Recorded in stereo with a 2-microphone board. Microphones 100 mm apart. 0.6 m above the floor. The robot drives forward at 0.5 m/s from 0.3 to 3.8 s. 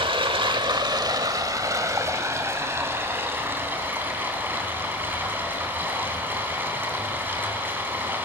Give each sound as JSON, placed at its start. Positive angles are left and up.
{"t": 0.0, "sound": "running water", "side_deg": -60, "distance_m": 1.0}